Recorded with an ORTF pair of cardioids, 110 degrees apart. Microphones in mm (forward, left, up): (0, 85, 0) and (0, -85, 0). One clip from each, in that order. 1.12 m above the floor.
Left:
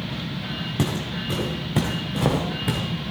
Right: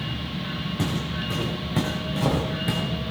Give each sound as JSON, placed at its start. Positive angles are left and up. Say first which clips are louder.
{"t": 0.8, "sound": "footsteps", "louder": "left 2 dB", "azimuth_deg": 35, "distance_m": 4.0}